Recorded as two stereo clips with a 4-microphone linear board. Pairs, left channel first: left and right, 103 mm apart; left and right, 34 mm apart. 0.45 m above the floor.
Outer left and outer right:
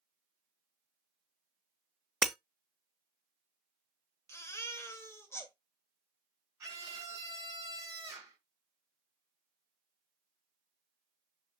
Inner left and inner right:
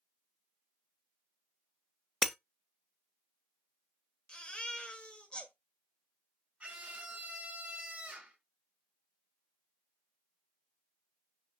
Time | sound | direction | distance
2.2 | breaking glass | centre (ahead or behind) | 0.5 m
4.3 | a baby crying | 25° left (ahead or behind) | 1.6 m
6.6 | a scream | 30° right (ahead or behind) | 5 m